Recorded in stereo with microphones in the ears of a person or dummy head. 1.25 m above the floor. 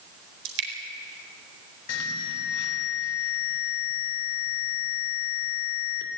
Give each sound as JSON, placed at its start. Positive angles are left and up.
{"t": 0.5, "sound": "dripping", "side_deg": -70, "distance_m": 4.0}
{"t": 1.9, "sound": "an alarm", "side_deg": 75, "distance_m": 3.0}